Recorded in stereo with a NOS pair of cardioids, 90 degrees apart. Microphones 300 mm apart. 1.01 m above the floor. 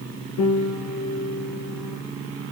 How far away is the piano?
About 4.5 m.